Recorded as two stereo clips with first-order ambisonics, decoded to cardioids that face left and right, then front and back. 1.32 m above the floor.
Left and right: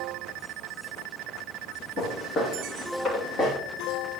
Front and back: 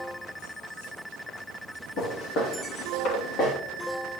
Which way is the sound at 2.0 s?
35° left.